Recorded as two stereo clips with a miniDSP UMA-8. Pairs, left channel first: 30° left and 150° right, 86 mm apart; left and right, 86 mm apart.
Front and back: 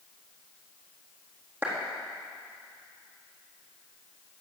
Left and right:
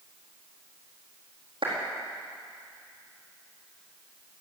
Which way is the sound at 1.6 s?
80° right.